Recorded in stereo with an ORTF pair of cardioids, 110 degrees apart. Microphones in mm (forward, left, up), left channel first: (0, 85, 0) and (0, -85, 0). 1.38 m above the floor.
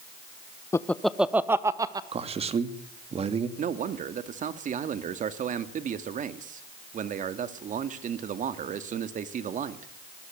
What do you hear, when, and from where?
0.7 s laughter: 15° left, 1.0 m; by 2.0 s 20° right, 2.0 m
2.1 s a man speaking: 35° right, 2.5 m
3.6 s a man speaking: 50° right, 2 m